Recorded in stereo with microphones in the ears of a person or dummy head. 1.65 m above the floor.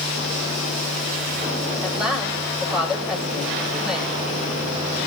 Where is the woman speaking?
Centre (ahead or behind), 9 m.